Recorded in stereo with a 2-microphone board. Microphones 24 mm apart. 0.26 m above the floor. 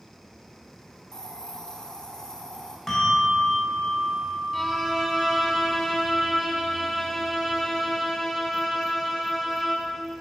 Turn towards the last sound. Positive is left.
turn(degrees=0)  # may be behind; listen again after turning